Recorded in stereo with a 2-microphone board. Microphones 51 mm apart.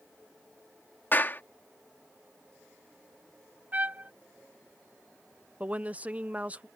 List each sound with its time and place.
1.1 s a clap: 40° left (ahead or behind)
3.7 s a trumpet: 35° right (ahead or behind)
5.6 s a woman speaking: 25° right (ahead or behind)